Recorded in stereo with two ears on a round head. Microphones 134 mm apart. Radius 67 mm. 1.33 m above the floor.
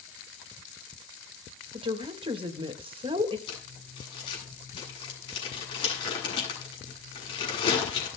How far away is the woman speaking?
About 1.7 m.